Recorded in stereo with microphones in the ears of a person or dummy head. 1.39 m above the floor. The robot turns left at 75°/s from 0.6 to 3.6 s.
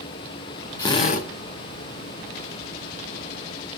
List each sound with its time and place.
0.8 s a drill: 160° left, 1.4 m; by 1.3 s 125° left, 1.4 m